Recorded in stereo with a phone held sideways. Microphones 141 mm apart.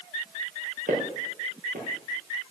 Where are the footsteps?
70° right (ahead or behind), 3.5 m.